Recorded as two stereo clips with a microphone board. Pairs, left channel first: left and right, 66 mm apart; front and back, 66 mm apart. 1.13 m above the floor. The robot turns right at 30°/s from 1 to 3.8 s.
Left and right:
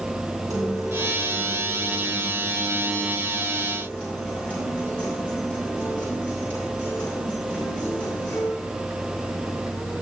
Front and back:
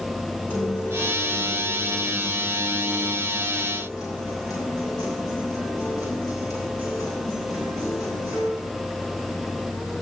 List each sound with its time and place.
0.5 s a guitar: 60° right, 8 m; by 8.5 s 25° left, 8 m